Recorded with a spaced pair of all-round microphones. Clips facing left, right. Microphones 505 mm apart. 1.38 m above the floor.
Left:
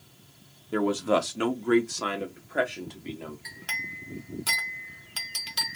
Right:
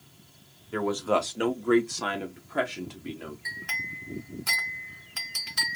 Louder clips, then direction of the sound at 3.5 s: Right 1 dB; 55° left (ahead or behind).